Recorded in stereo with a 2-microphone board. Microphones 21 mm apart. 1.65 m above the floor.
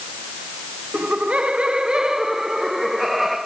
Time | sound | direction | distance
0.9 | laughter | 80° right | 1.5 m